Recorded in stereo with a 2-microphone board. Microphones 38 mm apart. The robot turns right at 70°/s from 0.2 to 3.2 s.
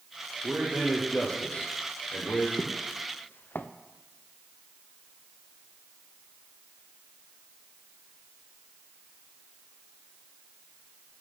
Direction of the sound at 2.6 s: 5° left (ahead or behind).